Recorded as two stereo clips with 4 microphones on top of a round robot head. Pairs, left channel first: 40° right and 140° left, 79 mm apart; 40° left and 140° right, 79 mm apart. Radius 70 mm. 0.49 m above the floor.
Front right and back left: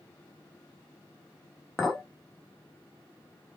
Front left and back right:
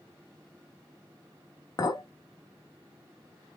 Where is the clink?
45° left, 0.9 m.